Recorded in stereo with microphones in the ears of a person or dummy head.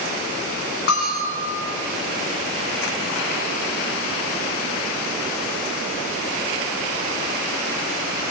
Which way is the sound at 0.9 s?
55° left (ahead or behind).